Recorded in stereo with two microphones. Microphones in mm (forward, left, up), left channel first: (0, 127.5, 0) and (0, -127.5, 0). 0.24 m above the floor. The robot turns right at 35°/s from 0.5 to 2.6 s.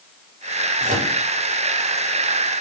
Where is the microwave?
25° right (ahead or behind), 2 m; by 1.1 s 40° right (ahead or behind), 2 m.